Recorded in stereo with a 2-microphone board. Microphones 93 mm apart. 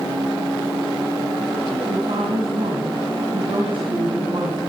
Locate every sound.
1.9 s a woman speaking: 60° right (ahead or behind), 2.5 m